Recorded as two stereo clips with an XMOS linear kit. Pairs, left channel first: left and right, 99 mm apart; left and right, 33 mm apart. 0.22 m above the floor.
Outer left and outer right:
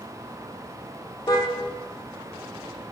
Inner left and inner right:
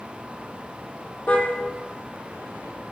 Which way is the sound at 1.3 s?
40° left (ahead or behind).